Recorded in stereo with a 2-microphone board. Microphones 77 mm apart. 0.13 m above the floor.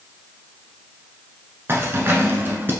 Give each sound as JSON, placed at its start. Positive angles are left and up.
{"t": 1.7, "sound": "keys jangling", "side_deg": -30, "distance_m": 0.9}